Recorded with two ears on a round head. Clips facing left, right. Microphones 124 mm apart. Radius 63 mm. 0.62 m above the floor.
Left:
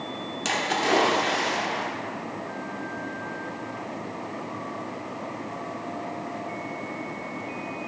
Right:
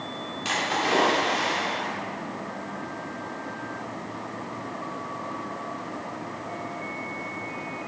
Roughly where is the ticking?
I don't hear ticking.